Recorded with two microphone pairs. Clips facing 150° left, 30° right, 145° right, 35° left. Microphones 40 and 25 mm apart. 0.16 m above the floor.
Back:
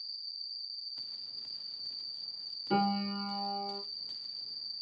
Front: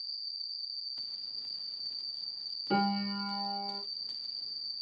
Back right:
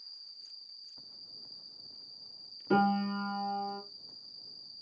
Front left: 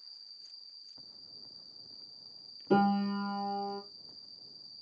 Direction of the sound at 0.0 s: 75° right.